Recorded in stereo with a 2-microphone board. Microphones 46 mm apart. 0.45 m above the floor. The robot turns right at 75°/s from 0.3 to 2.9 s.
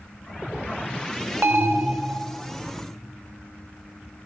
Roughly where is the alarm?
Right.